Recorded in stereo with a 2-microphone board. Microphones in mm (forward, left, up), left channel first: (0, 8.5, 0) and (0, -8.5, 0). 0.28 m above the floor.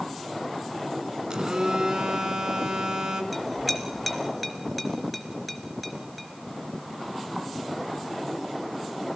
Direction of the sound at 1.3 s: 50° right (ahead or behind).